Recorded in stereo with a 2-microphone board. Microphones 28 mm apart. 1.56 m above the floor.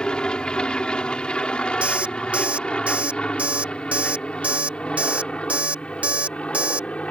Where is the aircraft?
35° left (ahead or behind); by 7.1 s 45° left (ahead or behind).